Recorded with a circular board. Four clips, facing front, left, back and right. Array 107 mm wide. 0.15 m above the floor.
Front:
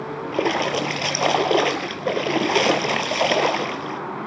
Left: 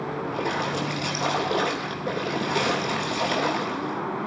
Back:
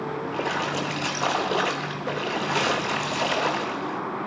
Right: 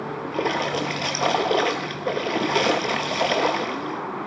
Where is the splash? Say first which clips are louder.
Right 5 dB, front 8 dB; 20° right, 0.6 m.